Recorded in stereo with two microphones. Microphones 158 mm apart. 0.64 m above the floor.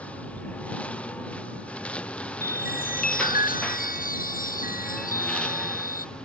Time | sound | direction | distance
0.0 | a lawn mower | 10° left (ahead or behind) | ?
2.4 | a chime | 65° left (ahead or behind) | ?